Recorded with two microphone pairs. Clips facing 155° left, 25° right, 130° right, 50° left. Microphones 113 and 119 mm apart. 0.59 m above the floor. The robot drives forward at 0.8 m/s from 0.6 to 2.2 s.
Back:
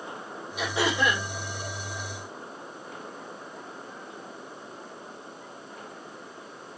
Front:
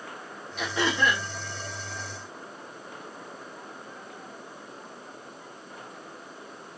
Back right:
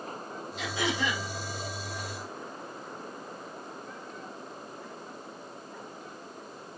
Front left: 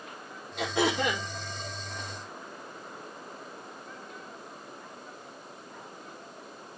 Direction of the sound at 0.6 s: 70° left.